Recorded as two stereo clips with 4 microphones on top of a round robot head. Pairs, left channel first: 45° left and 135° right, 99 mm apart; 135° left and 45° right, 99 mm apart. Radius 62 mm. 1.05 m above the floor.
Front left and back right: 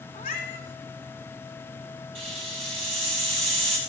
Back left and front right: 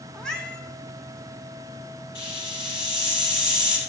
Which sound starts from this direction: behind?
A hiss, at 2.1 s.